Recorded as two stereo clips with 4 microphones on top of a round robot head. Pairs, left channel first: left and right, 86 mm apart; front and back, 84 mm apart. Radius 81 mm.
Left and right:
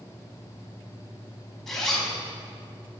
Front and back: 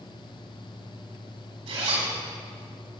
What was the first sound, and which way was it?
A zipper, 175° left.